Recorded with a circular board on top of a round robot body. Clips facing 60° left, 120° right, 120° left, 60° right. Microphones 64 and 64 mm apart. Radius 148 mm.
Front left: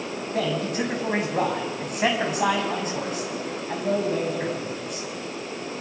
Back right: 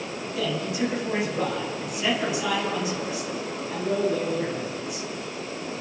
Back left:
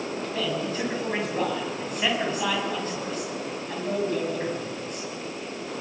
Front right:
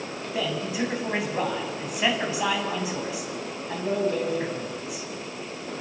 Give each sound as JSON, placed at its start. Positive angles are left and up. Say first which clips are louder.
{"t": 0.3, "sound": "a man speaking", "louder": "front left 2 dB, front right 2 dB", "azimuth_deg": 20, "distance_m": 6.5}